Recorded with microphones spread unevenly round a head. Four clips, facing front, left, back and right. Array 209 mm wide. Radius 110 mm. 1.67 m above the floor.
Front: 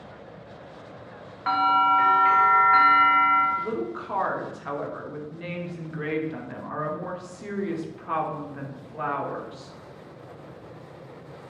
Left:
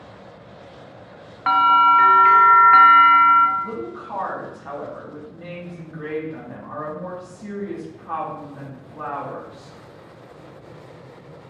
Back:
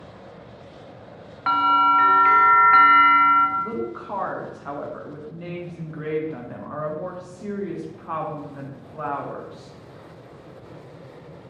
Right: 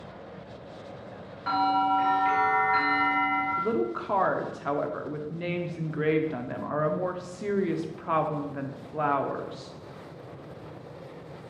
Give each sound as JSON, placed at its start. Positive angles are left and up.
{"t": 1.5, "sound": "a bell", "azimuth_deg": 110, "distance_m": 0.8}
{"t": 3.6, "sound": "a woman speaking", "azimuth_deg": -85, "distance_m": 0.8}